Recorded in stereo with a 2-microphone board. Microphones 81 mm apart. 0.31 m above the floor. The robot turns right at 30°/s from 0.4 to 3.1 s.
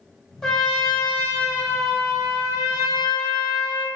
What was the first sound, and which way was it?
A trumpet, 5° left.